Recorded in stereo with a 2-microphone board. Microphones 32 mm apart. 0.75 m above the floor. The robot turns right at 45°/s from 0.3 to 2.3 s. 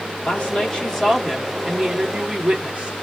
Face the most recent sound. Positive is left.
turn(degrees=-140)